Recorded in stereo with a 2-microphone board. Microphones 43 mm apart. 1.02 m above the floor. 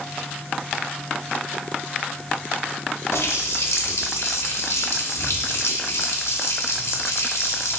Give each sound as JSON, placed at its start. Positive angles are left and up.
{"t": 3.1, "sound": "a running tap", "side_deg": 80, "distance_m": 0.7}